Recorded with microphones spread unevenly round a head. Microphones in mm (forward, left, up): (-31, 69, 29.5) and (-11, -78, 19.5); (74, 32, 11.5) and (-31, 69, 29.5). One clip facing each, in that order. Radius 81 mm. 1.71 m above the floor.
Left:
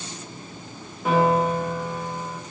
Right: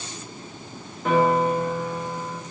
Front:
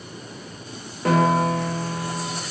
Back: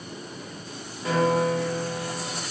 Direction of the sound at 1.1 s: 10° left.